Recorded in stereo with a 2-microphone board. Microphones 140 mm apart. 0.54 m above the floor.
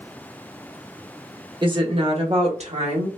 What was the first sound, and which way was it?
A woman speaking, 35° right (ahead or behind).